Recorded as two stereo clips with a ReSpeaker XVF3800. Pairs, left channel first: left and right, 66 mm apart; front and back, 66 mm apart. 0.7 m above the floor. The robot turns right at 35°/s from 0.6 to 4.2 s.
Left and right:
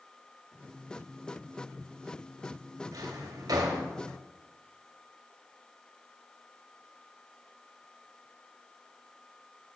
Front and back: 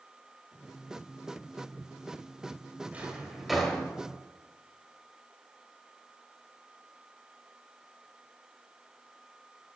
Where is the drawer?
115° right, 1.3 m; by 3.8 s 80° right, 1.3 m.